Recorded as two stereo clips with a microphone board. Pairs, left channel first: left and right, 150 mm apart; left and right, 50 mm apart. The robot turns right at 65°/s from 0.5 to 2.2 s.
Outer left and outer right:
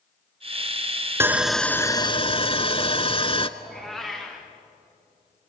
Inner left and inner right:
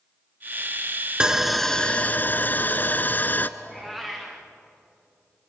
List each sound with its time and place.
1.2 s sawing: 20° right, 0.8 m; by 3.5 s 45° left, 0.8 m
3.6 s a cat meowing: centre (ahead or behind), 4 m